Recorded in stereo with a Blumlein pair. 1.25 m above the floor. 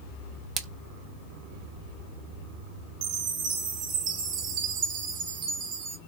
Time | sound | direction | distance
0.6 | a splash | 20° right | 0.6 m
3.0 | a chime | 35° right | 1.2 m